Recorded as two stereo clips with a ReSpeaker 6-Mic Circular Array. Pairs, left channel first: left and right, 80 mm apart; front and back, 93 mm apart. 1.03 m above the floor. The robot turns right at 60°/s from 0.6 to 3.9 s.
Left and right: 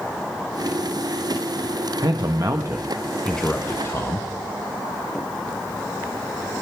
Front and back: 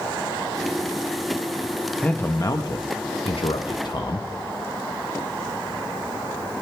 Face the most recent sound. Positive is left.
turn(degrees=40)